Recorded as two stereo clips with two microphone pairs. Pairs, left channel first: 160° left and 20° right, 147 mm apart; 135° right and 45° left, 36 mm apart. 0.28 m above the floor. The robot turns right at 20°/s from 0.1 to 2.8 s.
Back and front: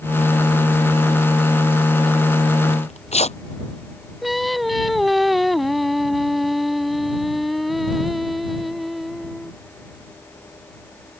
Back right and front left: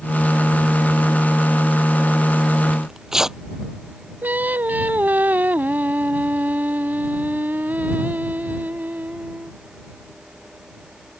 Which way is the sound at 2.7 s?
115° left.